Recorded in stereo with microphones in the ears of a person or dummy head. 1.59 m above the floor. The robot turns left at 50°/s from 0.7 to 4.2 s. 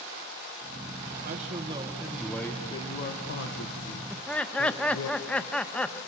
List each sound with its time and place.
1.2 s a man speaking: 135° right, 1.8 m; by 5.1 s 80° left, 1.8 m
4.1 s laughter: centre (ahead or behind), 1.4 m; by 6.0 s 5° left (ahead or behind), 1.4 m